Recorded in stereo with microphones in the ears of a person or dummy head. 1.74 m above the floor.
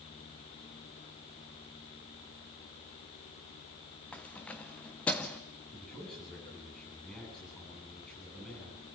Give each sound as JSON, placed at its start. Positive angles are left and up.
{"t": 4.1, "sound": "keys jangling", "side_deg": 5, "distance_m": 0.9}
{"t": 5.7, "sound": "a man speaking", "side_deg": 5, "distance_m": 9.0}